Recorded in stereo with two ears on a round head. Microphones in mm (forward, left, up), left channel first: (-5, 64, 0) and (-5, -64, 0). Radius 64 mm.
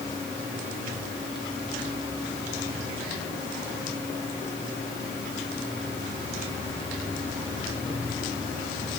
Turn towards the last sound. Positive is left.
No sound to turn to.